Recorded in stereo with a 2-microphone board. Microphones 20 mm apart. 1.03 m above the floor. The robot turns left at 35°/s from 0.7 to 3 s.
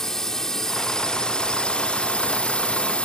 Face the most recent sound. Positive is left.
turn(degrees=75)